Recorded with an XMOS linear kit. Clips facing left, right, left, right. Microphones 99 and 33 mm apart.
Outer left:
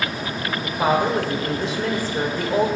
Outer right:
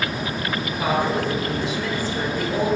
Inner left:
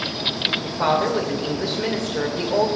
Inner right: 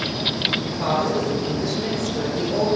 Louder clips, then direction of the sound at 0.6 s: Outer left 4 dB, inner left 2 dB; 35° left (ahead or behind).